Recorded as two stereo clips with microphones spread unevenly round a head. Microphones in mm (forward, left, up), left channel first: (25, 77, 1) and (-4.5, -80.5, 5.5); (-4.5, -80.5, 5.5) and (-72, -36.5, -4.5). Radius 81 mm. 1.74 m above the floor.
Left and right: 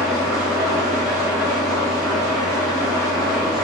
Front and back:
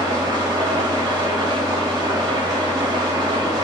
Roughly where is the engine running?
Behind.